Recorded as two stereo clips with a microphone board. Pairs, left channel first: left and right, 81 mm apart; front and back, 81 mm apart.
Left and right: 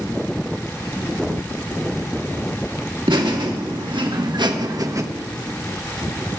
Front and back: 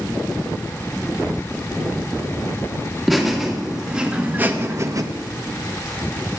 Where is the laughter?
90° right, 2.0 m; by 5.0 s 140° right, 0.9 m.